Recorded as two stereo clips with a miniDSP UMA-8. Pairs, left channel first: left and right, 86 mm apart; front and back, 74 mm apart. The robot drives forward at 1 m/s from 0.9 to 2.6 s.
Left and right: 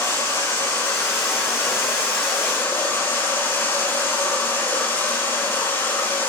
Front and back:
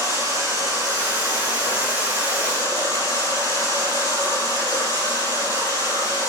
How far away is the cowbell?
No cowbell in this recording.